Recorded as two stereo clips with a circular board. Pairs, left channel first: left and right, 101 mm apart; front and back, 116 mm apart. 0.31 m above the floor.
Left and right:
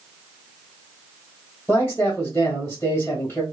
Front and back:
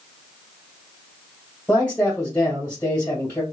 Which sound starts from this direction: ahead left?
A man speaking, at 1.7 s.